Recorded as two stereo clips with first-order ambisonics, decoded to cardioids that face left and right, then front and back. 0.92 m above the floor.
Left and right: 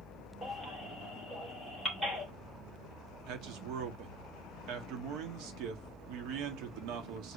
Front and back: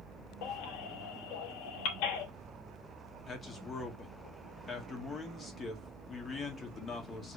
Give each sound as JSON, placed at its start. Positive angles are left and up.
{"t": 0.4, "sound": "a baby crying", "azimuth_deg": -15, "distance_m": 3.0}
{"t": 3.3, "sound": "a man speaking", "azimuth_deg": -70, "distance_m": 2.0}